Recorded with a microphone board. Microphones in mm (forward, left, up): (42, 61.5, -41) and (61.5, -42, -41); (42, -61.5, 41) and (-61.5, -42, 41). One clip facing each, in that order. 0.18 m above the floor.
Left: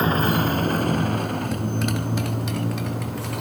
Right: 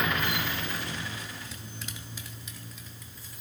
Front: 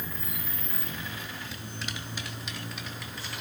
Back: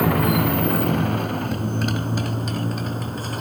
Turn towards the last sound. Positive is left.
turn(degrees=120)